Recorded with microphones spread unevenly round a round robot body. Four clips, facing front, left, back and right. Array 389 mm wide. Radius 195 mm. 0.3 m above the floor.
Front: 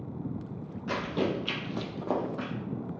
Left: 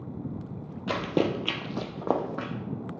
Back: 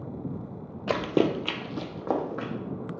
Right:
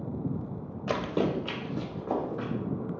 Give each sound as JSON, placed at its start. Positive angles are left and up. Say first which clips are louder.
{"t": 0.9, "sound": "running footsteps", "louder": "left 2 dB, back 6 dB", "azimuth_deg": 175, "distance_m": 0.6}